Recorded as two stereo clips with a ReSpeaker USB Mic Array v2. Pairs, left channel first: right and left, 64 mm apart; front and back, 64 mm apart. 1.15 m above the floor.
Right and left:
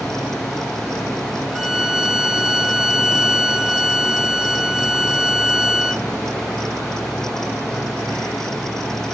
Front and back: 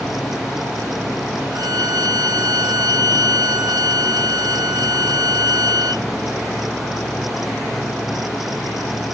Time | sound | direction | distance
1.5 | a violin | 170° left | 0.7 m